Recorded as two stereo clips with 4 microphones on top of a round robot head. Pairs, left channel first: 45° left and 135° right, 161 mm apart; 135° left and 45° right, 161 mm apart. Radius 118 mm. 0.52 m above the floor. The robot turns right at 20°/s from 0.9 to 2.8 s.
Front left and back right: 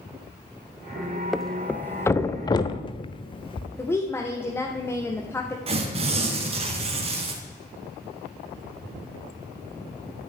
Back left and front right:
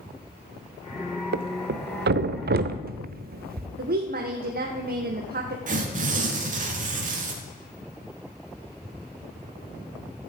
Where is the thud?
45° right, 0.9 m; by 3.7 s 15° right, 0.9 m.